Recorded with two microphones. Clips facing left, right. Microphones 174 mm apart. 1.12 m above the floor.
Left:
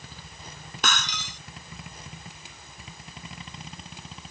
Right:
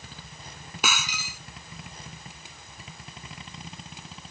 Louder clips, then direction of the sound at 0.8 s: Even; 10° right (ahead or behind).